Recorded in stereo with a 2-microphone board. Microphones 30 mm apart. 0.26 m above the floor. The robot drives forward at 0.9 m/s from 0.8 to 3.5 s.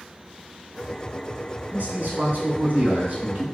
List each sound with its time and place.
1.7 s a man speaking: 60° right (ahead or behind), 3 m; by 3.4 s 55° right (ahead or behind), 3 m